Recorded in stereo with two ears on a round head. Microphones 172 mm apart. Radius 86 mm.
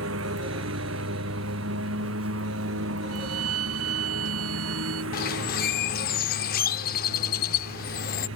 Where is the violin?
85° right.